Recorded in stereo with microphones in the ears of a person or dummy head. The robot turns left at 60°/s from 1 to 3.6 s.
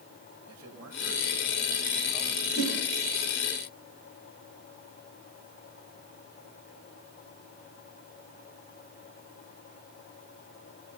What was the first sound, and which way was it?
A man speaking, 90° right.